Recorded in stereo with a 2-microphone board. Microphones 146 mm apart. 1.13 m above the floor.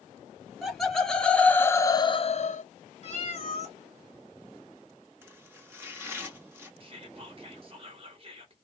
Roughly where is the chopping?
Centre.